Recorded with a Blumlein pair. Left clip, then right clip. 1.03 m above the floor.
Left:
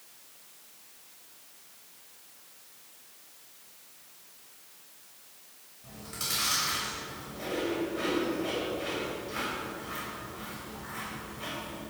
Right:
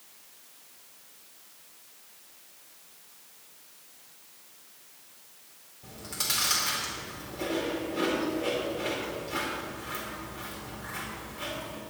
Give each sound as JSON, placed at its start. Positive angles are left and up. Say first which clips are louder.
{"t": 5.8, "sound": "chewing", "louder": "right 4 dB", "azimuth_deg": -45, "distance_m": 4.5}